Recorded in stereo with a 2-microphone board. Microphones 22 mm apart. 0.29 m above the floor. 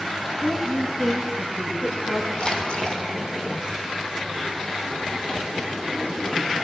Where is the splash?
45° left (ahead or behind), 3.5 m.